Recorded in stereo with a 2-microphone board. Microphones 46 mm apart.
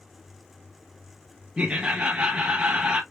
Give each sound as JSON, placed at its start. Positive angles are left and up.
{"t": 1.6, "sound": "laughter", "side_deg": -25, "distance_m": 0.6}